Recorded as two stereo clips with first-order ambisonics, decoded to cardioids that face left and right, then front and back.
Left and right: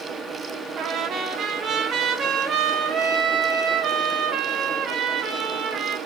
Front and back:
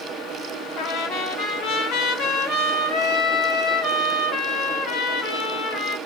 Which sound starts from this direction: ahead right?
A trumpet, at 0.8 s.